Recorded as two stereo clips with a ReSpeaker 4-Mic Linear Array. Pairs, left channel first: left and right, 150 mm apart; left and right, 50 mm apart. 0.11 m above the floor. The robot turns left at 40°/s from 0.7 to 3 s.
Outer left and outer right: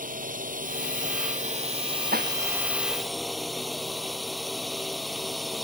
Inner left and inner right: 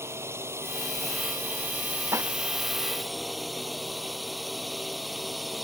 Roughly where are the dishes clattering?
Right.